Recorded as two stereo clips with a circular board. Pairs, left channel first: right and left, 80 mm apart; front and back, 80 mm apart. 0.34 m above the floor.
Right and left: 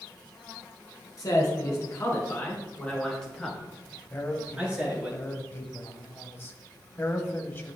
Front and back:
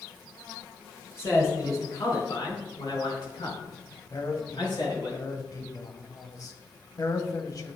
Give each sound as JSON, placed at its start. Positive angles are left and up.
{"t": 1.2, "sound": "a man speaking", "azimuth_deg": -50, "distance_m": 4.5}
{"t": 4.1, "sound": "a man speaking", "azimuth_deg": -30, "distance_m": 1.5}